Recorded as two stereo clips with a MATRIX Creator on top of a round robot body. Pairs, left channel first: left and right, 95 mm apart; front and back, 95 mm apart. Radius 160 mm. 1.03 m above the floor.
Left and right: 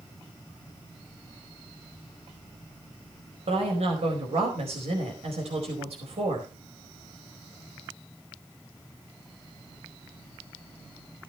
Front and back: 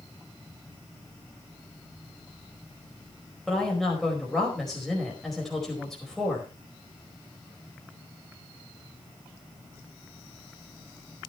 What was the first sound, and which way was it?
A woman speaking, 85° right.